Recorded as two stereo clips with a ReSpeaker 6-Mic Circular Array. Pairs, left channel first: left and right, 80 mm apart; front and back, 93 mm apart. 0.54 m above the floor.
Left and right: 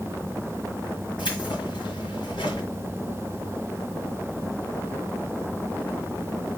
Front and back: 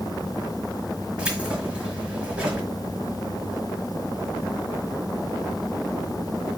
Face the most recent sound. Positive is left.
turn(degrees=100)